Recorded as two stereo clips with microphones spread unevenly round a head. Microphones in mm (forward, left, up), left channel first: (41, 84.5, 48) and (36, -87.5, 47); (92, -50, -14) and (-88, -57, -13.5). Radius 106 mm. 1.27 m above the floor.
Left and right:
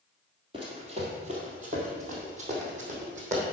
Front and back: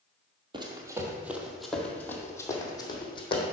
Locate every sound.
0.5 s running footsteps: 140° right, 1.5 m; by 3.4 s 50° right, 2.5 m